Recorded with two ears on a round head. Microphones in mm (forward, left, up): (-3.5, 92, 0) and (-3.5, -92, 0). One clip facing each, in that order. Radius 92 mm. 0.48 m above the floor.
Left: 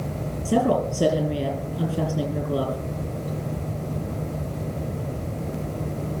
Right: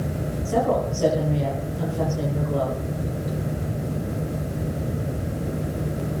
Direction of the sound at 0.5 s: 55° left (ahead or behind).